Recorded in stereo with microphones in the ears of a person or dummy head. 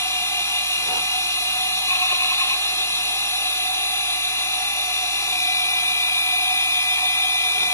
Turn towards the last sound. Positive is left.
turn(degrees=15)  # may be behind; listen again after turning